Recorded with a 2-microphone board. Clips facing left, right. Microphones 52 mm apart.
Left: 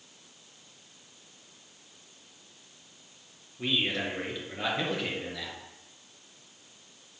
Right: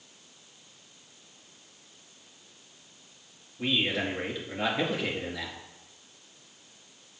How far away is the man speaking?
About 4 m.